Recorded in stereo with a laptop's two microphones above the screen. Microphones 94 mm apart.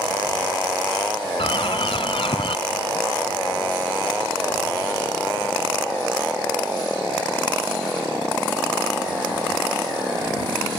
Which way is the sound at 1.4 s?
70° left (ahead or behind).